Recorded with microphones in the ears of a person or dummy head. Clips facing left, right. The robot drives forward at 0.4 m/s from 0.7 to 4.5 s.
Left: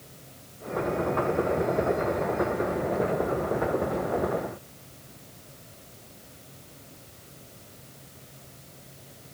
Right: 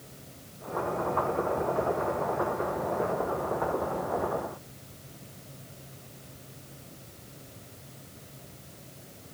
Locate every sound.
Only background noise.